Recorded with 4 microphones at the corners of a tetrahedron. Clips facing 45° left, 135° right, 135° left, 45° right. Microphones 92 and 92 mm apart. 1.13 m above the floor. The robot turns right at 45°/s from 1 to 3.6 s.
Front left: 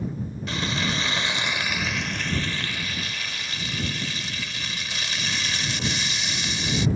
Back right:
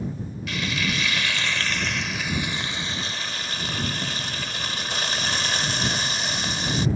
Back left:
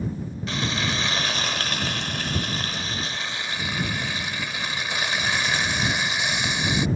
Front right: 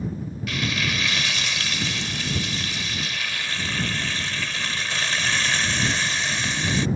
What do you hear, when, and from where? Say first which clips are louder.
0.5 s frying: even, even; 90° left; by 6.9 s 155° right